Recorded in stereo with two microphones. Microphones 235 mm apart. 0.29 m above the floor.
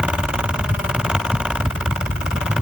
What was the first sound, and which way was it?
Only background noise.